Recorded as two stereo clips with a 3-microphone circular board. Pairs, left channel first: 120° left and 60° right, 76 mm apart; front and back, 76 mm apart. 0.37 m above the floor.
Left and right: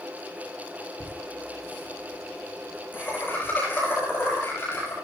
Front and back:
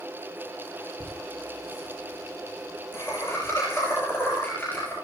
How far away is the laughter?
About 9 m.